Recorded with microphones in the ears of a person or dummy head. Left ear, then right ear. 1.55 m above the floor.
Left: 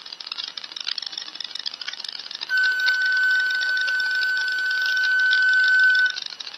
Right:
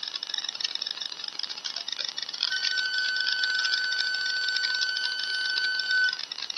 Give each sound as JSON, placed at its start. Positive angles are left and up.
{"t": 2.5, "sound": "a flute", "side_deg": 60, "distance_m": 1.4}